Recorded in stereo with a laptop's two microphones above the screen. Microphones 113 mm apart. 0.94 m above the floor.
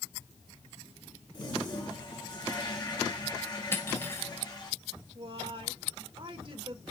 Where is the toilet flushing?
35° left (ahead or behind), 2.0 m.